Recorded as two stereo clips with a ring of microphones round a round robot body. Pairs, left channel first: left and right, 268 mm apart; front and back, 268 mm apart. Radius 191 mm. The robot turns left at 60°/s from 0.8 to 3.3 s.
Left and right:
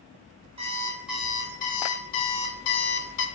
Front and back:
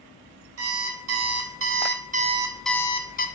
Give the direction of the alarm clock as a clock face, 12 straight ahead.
5 o'clock.